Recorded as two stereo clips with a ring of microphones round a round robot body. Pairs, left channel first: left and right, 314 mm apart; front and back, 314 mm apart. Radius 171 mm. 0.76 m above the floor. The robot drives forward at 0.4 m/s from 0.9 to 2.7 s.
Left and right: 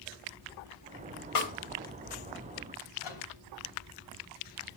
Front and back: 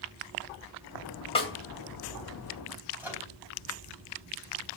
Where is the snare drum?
75° left, 3 m.